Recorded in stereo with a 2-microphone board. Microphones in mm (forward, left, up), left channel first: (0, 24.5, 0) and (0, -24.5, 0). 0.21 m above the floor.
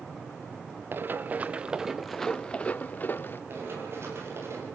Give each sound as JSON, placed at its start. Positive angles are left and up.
{"t": 0.9, "sound": "running footsteps", "side_deg": -45, "distance_m": 1.1}
{"t": 3.5, "sound": "running footsteps", "side_deg": -55, "distance_m": 9.5}